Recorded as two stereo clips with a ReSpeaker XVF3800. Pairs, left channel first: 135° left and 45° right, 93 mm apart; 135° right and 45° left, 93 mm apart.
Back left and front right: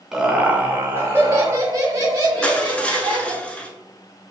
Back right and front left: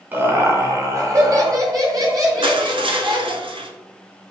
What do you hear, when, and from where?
0.1 s laughter: 35° left, 0.8 m; by 3.4 s straight ahead, 2.5 m
2.4 s crushing: 60° left, 0.6 m